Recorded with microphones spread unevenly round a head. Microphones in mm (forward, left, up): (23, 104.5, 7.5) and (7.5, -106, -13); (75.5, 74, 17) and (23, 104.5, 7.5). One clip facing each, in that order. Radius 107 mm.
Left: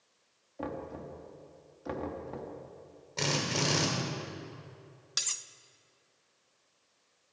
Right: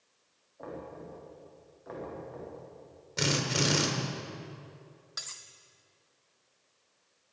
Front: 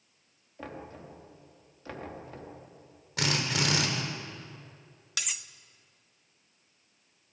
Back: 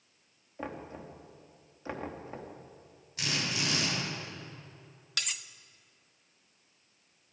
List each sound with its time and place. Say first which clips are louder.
0.6 s knocking: left 3 dB, back 2 dB; 80° left, 3 m
3.2 s a drill: right 2 dB, front 4 dB; 20° right, 3.5 m
5.2 s cutlery clinking: left 3 dB, even; 50° left, 0.8 m